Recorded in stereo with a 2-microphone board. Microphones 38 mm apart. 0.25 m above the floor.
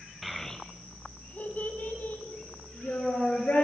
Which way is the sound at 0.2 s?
5° right (ahead or behind).